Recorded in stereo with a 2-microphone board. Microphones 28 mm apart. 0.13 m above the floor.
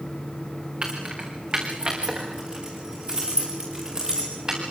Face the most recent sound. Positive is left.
turn(degrees=-25)  # may be behind; listen again after turning